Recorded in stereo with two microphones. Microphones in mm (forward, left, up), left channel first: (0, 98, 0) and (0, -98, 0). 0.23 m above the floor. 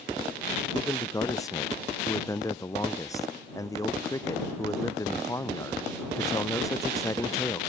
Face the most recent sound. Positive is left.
turn(degrees=15)  # may be behind; listen again after turning